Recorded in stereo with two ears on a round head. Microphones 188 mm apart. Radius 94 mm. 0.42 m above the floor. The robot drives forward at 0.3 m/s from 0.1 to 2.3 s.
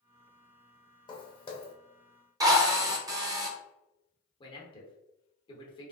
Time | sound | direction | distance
1.1 | footsteps | 25° left (ahead or behind) | 0.8 m
2.4 | a drill | 15° right (ahead or behind) | 0.6 m
4.4 | a man speaking | 25° left (ahead or behind) | 0.9 m